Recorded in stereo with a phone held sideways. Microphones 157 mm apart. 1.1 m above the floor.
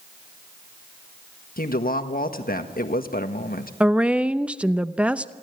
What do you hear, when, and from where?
1.6 s a woman speaking: 70° left (ahead or behind), 1.4 m
3.8 s a woman speaking: 10° right (ahead or behind), 0.6 m